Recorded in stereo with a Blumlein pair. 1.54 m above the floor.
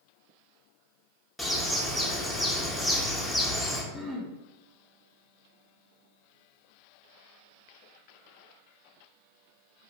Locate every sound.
1.4 s a bird: 5° left, 0.6 m
3.9 s throat clearing: straight ahead, 1.0 m